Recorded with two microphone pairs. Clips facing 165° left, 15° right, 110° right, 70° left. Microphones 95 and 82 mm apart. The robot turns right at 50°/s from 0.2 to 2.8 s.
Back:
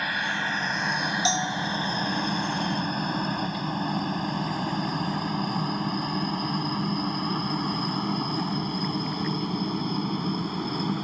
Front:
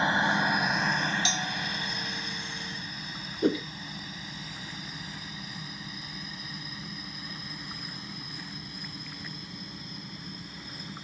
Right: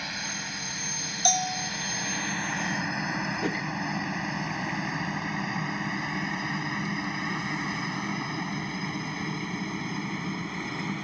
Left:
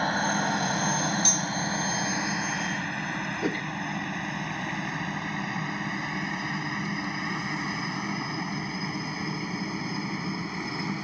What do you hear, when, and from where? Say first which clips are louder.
0.0 s a helicopter: front 3 dB, left 11 dB; 45° left; by 11.0 s 155° left
1.2 s a bell: back 6 dB, right 1 dB; 140° right; by 1.7 s 120° right
3.4 s a whoosh: front 4 dB, left 3 dB; 10° right